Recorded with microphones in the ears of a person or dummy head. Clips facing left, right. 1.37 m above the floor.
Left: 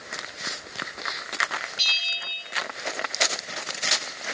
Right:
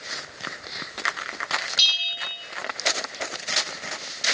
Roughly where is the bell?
Right.